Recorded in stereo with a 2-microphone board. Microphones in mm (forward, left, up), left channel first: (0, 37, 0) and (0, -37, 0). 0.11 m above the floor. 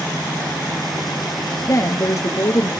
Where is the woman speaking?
45° left (ahead or behind), 1.4 m.